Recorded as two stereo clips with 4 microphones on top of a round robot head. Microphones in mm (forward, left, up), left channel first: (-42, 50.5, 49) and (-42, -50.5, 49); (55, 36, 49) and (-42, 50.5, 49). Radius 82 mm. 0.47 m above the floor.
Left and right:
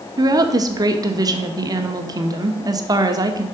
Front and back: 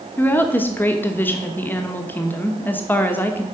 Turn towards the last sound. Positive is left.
turn(degrees=-70)